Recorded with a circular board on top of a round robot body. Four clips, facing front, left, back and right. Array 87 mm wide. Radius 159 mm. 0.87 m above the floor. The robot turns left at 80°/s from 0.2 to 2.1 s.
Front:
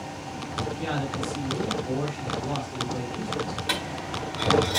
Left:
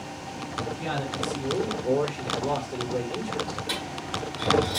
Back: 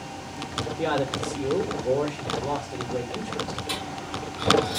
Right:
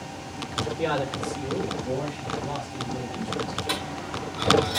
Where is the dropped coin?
15° right, 3 m.